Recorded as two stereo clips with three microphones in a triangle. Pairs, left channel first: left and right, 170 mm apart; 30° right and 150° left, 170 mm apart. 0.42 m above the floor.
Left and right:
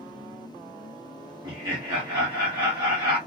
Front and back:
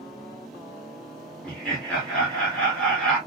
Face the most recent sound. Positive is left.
turn(degrees=-105)